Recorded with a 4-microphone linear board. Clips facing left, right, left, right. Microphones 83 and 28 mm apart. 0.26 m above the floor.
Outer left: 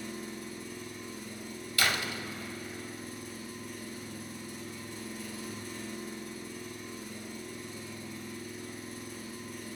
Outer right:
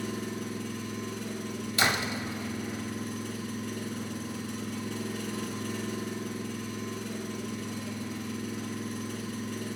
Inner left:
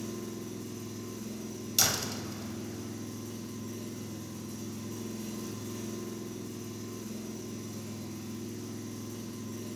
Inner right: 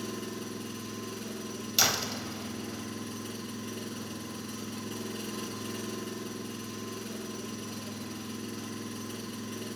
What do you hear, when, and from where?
0.0 s an engine running: 70° right (ahead or behind), 1.1 m
1.8 s a door slam: 20° right (ahead or behind), 0.6 m